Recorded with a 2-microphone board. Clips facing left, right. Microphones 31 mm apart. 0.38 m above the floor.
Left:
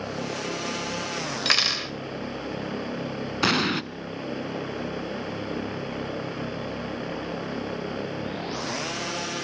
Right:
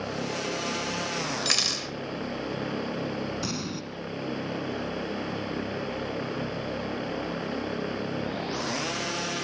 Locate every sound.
1.4 s cutlery clinking: 25° left (ahead or behind), 0.7 m
3.4 s an explosion: 65° left (ahead or behind), 0.5 m